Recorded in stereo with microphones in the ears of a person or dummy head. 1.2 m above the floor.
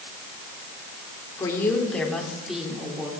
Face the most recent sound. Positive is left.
turn(degrees=-10)  # may be behind; listen again after turning